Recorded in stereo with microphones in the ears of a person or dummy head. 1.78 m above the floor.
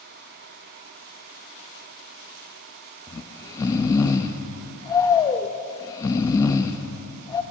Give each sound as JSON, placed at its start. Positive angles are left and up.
{"t": 3.1, "sound": "snoring", "side_deg": 25, "distance_m": 0.6}